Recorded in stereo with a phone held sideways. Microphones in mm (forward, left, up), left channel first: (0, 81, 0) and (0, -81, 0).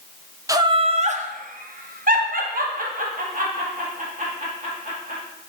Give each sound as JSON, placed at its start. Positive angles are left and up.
{"t": 0.5, "sound": "laughter", "side_deg": -20, "distance_m": 0.6}